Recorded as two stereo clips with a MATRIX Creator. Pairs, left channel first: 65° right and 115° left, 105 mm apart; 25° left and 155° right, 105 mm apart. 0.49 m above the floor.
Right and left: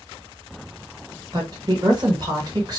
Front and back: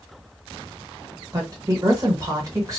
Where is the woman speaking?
155° left, 1.6 m.